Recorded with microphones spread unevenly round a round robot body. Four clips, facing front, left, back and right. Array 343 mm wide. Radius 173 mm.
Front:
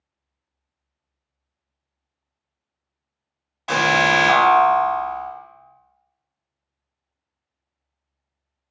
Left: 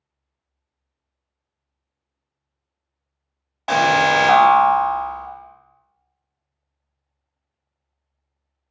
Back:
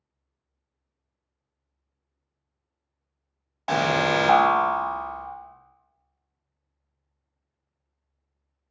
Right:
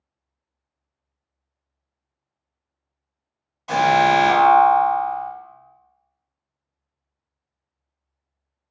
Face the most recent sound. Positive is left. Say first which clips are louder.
# even, front 4 dB
turn(degrees=110)